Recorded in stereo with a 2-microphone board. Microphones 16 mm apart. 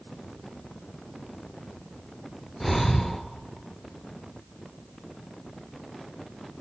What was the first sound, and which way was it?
Breathing, 15° left (ahead or behind).